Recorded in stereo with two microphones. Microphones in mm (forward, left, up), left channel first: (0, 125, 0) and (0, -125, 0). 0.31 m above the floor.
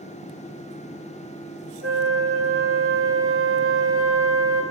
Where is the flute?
60° right (ahead or behind), 3 m.